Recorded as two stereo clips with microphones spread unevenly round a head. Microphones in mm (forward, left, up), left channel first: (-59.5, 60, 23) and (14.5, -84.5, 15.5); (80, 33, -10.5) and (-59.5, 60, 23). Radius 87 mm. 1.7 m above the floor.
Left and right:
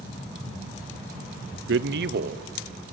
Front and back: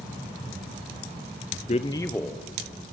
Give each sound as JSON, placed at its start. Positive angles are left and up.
{"t": 1.7, "sound": "a man speaking", "azimuth_deg": -65, "distance_m": 0.9}